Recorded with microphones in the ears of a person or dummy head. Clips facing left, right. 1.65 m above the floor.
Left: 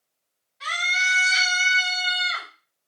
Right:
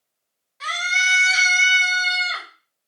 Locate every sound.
0.6 s a scream: 65° right (ahead or behind), 1.7 m